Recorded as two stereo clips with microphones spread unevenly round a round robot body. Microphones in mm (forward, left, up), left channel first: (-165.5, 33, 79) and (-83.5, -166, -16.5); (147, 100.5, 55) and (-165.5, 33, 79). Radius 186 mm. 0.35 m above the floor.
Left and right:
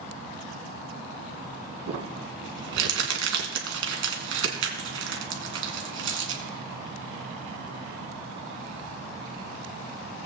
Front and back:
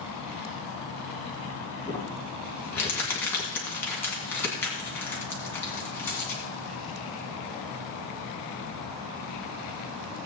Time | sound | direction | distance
1.9 | crumpling | 70° right | 1.9 m